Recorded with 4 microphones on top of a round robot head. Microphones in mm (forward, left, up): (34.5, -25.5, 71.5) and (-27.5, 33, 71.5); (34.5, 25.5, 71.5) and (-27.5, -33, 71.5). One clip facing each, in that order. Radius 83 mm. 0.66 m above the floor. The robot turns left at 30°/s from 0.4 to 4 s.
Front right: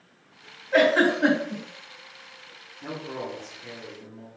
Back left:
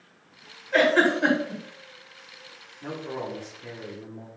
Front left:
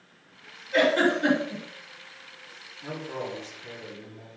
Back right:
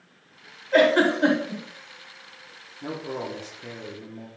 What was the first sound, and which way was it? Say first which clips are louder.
A giggle: front right 1 dB, back right 3 dB; 115° right.